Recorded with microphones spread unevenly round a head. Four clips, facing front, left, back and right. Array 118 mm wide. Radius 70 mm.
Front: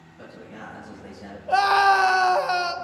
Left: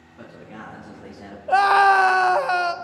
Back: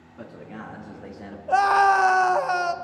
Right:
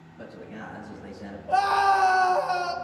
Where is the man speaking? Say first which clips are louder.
Even, back 2 dB; 160° left, 3 m; by 1.4 s 135° left, 2.5 m.